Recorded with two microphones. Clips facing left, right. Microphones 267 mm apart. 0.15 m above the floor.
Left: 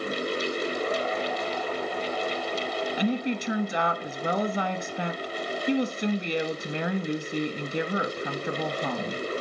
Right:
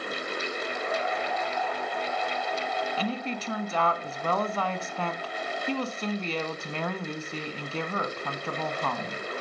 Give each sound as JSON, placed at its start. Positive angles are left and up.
{"t": 3.0, "sound": "a woman speaking", "side_deg": 15, "distance_m": 1.1}